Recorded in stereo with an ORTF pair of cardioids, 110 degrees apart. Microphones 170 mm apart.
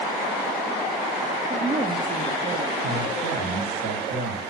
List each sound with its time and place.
1.5 s a woman speaking: 30° right, 1.3 m
2.8 s a man speaking: 65° right, 7 m